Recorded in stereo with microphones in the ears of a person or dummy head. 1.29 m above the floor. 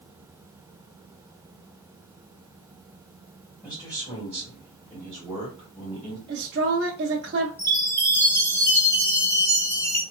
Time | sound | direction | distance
3.6 | a man speaking | 30° left (ahead or behind) | 1.9 m
6.3 | a woman speaking | 55° right (ahead or behind) | 0.5 m
7.6 | a chime | 15° left (ahead or behind) | 0.7 m